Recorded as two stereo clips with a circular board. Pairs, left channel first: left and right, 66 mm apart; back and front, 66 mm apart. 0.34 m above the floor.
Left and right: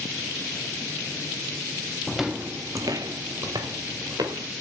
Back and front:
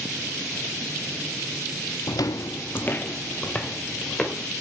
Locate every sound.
2.1 s footsteps: 170° left, 0.6 m; by 4.5 s 100° right, 3 m